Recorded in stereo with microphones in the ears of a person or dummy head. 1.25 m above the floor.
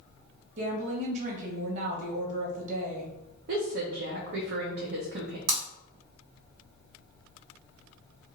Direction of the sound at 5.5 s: 60° right (ahead or behind).